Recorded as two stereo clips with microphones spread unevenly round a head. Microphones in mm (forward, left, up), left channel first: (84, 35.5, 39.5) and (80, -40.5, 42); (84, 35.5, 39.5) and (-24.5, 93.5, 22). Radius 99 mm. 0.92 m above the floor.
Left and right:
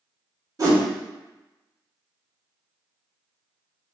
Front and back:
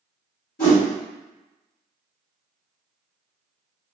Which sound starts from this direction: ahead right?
A whoosh, at 0.6 s.